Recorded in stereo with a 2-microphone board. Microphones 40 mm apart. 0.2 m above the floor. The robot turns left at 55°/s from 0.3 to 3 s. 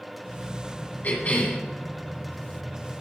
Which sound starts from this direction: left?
A cough, at 1.0 s.